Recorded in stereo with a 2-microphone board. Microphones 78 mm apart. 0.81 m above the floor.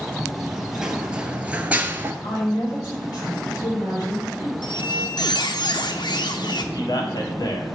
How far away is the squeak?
About 0.7 m.